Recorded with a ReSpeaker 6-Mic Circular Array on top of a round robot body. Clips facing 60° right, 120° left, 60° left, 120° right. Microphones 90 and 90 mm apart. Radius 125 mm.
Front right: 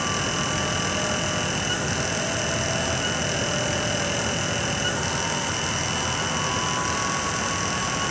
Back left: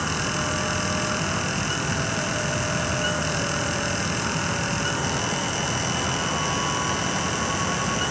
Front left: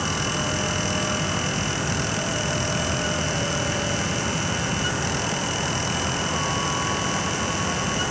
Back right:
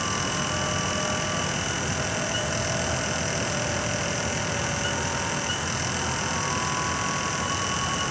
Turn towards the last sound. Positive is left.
No sound to turn to.